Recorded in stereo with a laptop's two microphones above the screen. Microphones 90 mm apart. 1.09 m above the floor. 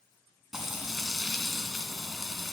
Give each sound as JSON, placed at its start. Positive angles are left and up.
{"t": 0.5, "sound": "frying", "side_deg": -5, "distance_m": 2.0}